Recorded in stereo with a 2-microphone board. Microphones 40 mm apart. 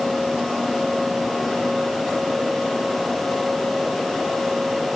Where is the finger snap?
I don't hear a finger snap.